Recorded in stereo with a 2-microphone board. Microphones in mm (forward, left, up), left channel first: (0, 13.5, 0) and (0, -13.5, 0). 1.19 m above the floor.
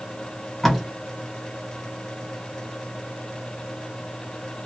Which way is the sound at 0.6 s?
15° left (ahead or behind).